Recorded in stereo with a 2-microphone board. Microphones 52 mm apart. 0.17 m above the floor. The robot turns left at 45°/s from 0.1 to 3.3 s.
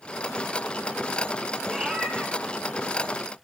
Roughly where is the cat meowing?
Ahead.